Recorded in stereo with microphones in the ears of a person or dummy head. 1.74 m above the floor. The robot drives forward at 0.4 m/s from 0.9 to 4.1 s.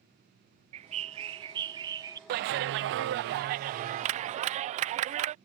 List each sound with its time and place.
0.7 s a bird: 30° right (ahead or behind); by 2.2 s 15° right (ahead or behind)
2.3 s a clap: 50° right (ahead or behind); by 5.3 s 35° right (ahead or behind)